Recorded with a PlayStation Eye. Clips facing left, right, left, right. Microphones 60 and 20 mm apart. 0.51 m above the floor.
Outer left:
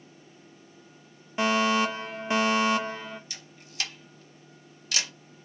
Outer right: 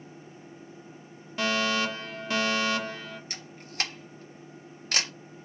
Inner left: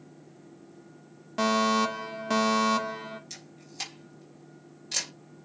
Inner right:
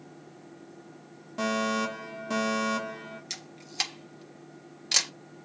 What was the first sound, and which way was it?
A fire alarm, 20° left (ahead or behind).